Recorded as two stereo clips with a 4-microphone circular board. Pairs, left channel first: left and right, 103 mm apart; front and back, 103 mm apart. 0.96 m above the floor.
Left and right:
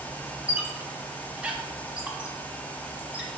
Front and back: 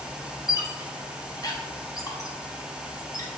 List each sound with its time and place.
0.5 s a squeak: 15° right, 0.6 m